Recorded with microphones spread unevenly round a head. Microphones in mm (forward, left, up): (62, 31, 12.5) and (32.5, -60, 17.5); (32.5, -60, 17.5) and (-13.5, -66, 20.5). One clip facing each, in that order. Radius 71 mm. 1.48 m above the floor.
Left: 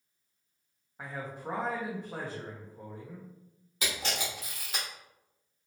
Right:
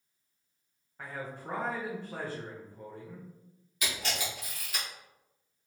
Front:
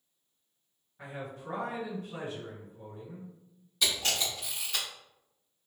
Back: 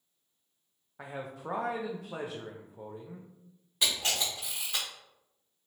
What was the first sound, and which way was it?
A man speaking, 155° left.